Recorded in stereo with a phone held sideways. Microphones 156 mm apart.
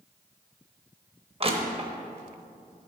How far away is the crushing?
About 0.9 m.